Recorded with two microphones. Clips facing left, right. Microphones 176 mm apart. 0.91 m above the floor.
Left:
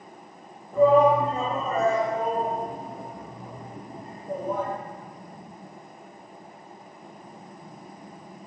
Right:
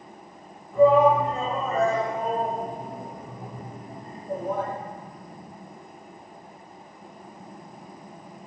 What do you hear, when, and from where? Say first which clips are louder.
0.7 s a shout: right 1 dB; 45° left (ahead or behind), 1.3 m; by 4.7 s 60° right (ahead or behind), 1.7 m